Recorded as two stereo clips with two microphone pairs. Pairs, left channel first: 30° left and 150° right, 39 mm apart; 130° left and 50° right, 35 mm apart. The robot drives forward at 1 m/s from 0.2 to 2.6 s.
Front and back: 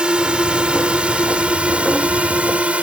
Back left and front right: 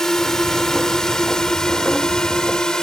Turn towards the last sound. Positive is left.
turn(degrees=-175)